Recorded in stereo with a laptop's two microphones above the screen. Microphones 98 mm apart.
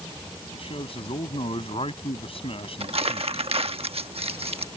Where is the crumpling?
70° right (ahead or behind).